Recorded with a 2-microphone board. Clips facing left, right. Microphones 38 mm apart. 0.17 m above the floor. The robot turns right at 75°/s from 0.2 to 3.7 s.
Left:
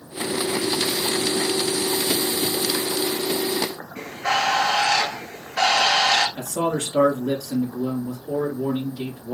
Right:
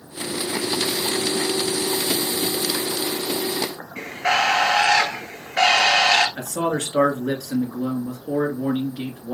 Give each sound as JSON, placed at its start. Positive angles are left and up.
{"t": 4.0, "sound": "a bird", "side_deg": -65, "distance_m": 1.0}
{"t": 6.4, "sound": "a man speaking", "side_deg": -55, "distance_m": 2.0}